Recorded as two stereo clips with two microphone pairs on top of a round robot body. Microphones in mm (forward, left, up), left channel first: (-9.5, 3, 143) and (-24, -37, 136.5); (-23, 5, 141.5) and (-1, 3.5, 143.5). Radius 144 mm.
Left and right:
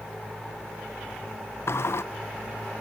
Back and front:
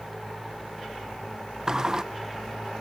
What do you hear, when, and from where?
1.7 s a sliding door: 60° left, 1.1 m